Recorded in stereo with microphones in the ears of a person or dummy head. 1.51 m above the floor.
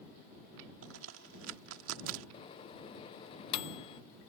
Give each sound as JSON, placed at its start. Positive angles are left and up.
{"t": 0.8, "sound": "a crack", "side_deg": -75}
{"t": 2.3, "sound": "a microwave", "side_deg": 25}